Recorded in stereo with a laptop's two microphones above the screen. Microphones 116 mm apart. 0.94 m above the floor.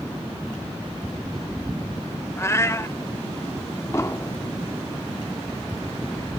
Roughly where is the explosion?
Left.